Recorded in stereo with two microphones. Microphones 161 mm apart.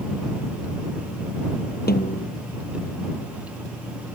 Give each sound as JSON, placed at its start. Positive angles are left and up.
{"t": 1.9, "sound": "a snare drum", "side_deg": 75}